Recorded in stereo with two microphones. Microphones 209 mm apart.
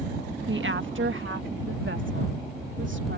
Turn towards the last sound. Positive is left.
turn(degrees=-70)  # may be behind; listen again after turning